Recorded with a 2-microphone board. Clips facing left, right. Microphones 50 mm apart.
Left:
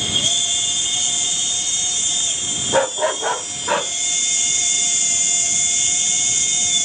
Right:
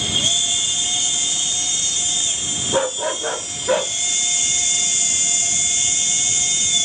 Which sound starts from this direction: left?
A dog barking, at 2.7 s.